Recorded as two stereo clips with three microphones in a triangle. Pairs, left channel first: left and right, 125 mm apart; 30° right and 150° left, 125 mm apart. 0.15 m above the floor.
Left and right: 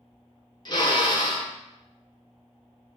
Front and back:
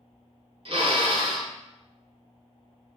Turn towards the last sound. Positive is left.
turn(degrees=130)